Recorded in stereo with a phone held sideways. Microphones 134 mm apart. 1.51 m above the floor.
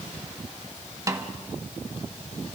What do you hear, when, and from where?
1.1 s a snare drum: 25° right (ahead or behind), 1.4 m